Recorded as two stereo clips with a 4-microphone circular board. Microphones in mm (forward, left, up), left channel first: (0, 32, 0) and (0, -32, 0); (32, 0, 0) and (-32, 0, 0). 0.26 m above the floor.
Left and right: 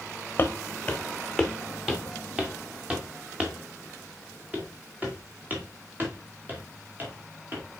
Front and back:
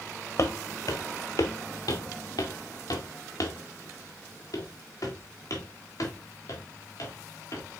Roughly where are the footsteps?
Ahead left.